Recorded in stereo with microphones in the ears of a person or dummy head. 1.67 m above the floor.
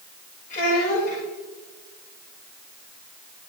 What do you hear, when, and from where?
0.5 s a child speaking: 45° left (ahead or behind), 5.5 m